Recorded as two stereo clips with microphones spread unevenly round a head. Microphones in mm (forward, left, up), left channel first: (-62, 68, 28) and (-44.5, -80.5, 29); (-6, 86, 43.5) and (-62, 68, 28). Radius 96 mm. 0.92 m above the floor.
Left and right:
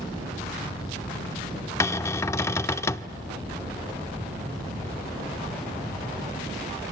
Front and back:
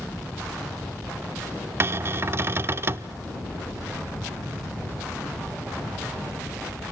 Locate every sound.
1.8 s a cupboard door: 155° left, 0.6 m